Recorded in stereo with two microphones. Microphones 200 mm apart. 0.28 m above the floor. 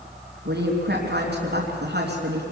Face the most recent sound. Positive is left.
turn(degrees=-60)  # may be behind; listen again after turning